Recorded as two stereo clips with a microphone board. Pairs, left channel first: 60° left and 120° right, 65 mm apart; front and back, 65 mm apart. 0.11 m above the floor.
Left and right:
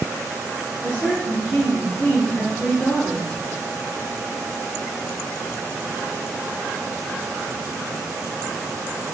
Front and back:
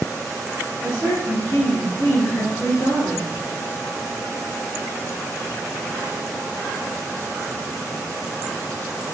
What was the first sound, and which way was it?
A woman speaking, straight ahead.